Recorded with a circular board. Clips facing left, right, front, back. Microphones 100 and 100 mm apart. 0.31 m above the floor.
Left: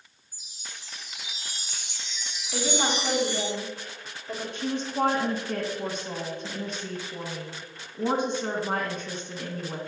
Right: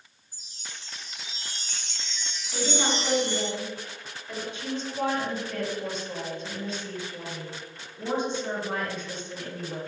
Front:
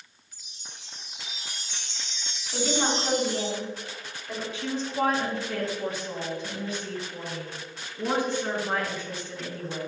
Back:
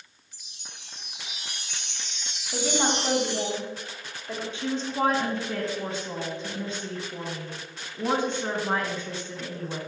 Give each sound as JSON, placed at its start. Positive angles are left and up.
{"t": 0.3, "sound": "a chime", "azimuth_deg": 170, "distance_m": 0.9}
{"t": 2.5, "sound": "a woman speaking", "azimuth_deg": 135, "distance_m": 2.0}
{"t": 4.5, "sound": "a woman speaking", "azimuth_deg": 120, "distance_m": 2.5}